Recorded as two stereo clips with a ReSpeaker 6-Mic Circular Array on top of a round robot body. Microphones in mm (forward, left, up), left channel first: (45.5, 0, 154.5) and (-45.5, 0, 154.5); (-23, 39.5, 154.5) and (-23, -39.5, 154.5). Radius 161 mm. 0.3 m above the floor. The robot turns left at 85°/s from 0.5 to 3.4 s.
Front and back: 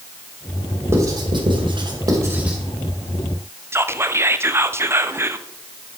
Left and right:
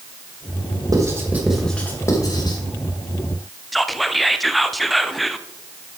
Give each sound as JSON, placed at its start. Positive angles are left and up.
{"t": 0.9, "sound": "writing", "azimuth_deg": -120, "distance_m": 2.5}
{"t": 3.7, "sound": "whispering", "azimuth_deg": 180, "distance_m": 0.9}